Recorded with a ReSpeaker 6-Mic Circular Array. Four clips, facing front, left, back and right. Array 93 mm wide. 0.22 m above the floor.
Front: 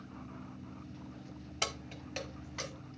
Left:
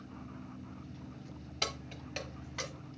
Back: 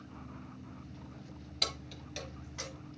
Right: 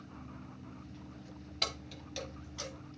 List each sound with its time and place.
1.6 s keys jangling: 15° left, 0.6 m; by 2.7 s 65° left, 1.0 m